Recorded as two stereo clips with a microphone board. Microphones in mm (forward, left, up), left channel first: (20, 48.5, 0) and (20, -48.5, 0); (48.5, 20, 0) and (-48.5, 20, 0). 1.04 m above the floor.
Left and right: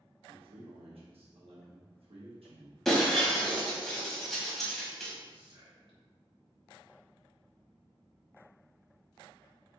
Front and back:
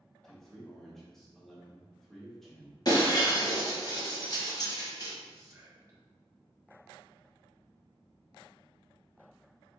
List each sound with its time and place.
0.2 s a man speaking: 85° right, 1.1 m
2.9 s breaking glass: 5° left, 1.1 m
5.3 s whispering: 125° right, 1.1 m